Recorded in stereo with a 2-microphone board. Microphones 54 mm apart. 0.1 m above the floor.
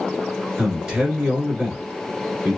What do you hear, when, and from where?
0.6 s a man speaking: 15° right (ahead or behind), 1.3 m